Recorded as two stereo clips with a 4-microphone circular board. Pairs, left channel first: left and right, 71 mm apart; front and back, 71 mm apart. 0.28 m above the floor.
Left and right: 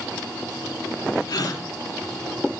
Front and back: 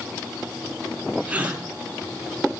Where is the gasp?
110° left, 3 m.